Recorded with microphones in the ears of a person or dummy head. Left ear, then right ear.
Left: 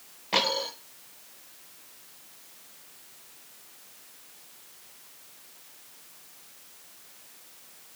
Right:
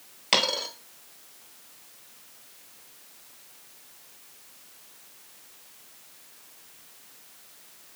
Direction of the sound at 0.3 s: 45° right (ahead or behind).